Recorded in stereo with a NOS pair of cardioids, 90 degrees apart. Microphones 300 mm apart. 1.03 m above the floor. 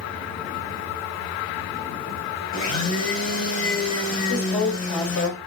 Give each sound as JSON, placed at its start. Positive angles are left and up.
{"t": 2.5, "sound": "a blender", "azimuth_deg": 45, "distance_m": 1.6}
{"t": 4.3, "sound": "a woman speaking", "azimuth_deg": 60, "distance_m": 2.0}